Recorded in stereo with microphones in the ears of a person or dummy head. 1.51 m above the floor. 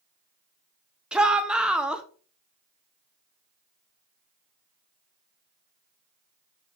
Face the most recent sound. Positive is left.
turn(degrees=-15)  # may be behind; listen again after turning